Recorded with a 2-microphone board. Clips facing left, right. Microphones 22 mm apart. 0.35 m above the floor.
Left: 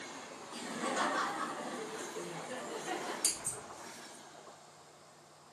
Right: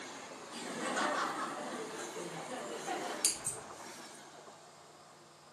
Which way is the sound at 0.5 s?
5° left (ahead or behind).